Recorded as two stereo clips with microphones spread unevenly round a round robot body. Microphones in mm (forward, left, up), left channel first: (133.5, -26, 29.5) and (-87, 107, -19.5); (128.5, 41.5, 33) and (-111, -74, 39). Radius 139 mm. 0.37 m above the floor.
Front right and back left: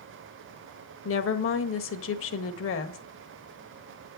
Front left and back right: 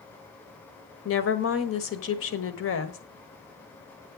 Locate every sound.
1.1 s a woman speaking: 5° left, 1.5 m